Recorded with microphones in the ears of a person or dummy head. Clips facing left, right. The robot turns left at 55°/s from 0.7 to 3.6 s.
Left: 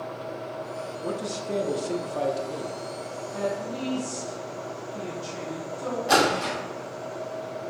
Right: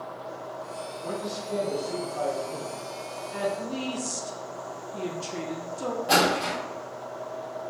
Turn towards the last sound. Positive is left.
turn(degrees=5)  # may be behind; listen again after turning